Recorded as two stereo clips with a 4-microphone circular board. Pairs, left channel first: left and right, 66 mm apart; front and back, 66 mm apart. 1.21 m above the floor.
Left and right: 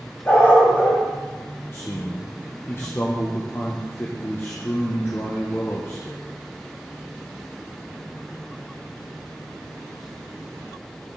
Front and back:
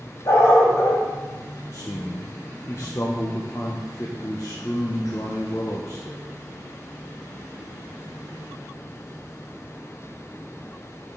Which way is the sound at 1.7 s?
40° left.